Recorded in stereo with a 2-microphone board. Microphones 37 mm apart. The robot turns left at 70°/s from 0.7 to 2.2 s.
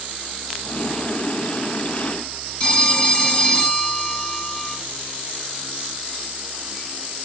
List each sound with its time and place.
2.6 s a phone ringing: 25° left (ahead or behind), 2.5 m